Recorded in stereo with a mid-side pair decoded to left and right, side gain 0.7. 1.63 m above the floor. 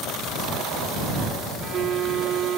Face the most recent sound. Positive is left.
turn(degrees=-45)